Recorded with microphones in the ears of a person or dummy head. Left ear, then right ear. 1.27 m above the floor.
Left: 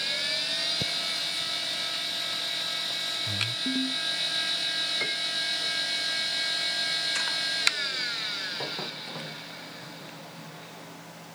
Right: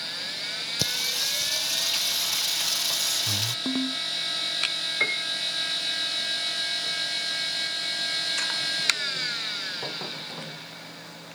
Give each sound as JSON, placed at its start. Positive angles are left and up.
{"t": 0.8, "sound": "singing", "side_deg": -40}
{"t": 3.6, "sound": "a ringtone", "side_deg": -55}
{"t": 5.0, "sound": "a piano", "side_deg": -85}